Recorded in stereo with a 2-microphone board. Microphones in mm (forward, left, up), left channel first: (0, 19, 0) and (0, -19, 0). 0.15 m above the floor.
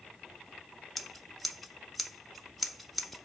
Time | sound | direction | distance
1.0 | scissors | centre (ahead or behind) | 0.7 m